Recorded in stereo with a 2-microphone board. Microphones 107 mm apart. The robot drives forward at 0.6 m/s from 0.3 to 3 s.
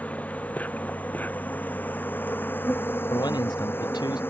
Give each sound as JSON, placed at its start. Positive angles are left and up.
{"t": 0.0, "sound": "an insect", "side_deg": 15}
{"t": 3.1, "sound": "a man speaking", "side_deg": 40}